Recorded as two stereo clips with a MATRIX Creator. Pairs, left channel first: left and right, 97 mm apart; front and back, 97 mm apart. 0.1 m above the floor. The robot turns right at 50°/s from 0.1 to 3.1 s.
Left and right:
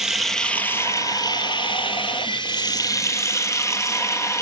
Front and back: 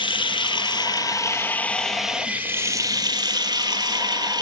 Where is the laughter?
No laughter in this recording.